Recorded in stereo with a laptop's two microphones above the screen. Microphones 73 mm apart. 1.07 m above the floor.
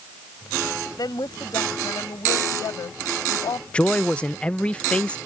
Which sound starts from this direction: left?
A woman speaking, at 1.0 s.